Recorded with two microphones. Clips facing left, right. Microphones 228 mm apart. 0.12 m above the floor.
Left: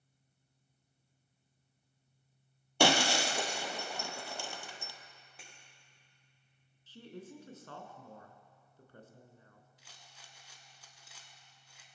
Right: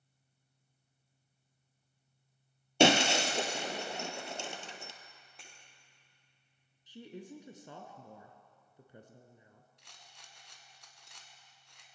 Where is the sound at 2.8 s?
25° right (ahead or behind), 1.0 m.